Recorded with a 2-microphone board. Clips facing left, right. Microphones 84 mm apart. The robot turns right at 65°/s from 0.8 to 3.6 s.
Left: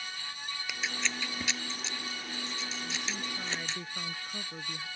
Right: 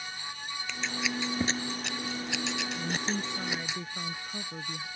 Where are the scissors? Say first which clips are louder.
Right 3 dB; 10° left (ahead or behind); by 3.8 s 5° right (ahead or behind).